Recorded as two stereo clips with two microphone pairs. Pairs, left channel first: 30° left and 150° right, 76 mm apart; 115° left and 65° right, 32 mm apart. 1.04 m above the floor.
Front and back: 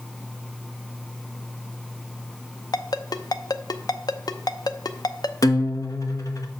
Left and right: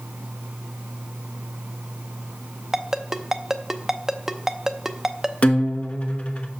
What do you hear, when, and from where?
2.7 s a ringtone: 15° left, 0.6 m
5.4 s a guitar: 70° left, 1.1 m